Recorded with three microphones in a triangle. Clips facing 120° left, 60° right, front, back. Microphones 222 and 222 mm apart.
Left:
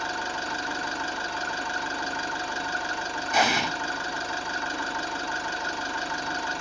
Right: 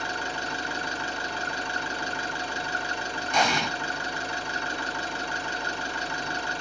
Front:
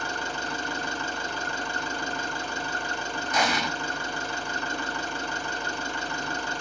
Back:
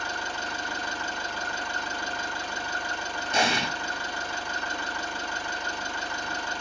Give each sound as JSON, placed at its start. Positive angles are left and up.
{"t": 0.0, "sound": "an engine running", "azimuth_deg": -25, "distance_m": 1.9}
{"t": 3.3, "sound": "an explosion", "azimuth_deg": -160, "distance_m": 0.5}